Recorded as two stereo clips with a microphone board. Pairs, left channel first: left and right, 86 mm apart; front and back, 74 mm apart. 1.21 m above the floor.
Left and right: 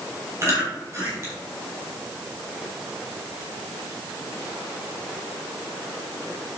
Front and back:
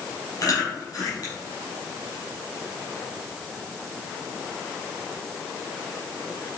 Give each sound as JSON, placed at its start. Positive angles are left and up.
{"t": 0.4, "sound": "chewing", "azimuth_deg": -35, "distance_m": 5.5}